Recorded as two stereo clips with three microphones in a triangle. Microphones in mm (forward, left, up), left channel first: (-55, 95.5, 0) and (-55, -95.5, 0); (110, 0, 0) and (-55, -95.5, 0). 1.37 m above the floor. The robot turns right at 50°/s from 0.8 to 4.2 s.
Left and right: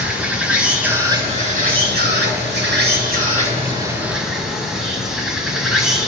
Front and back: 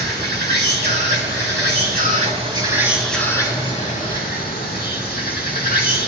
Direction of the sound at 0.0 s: 175° right.